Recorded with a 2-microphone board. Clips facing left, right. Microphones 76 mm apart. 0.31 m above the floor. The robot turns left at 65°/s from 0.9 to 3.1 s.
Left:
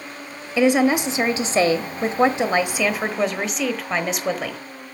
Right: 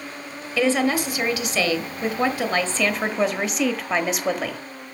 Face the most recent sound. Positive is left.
turn(degrees=0)